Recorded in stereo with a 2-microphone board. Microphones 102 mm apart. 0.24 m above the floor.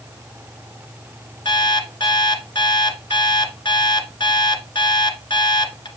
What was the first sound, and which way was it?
An alarm clock, 50° left (ahead or behind).